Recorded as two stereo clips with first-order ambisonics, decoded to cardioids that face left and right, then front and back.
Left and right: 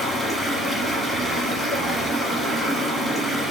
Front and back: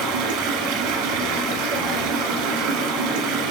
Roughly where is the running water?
Behind.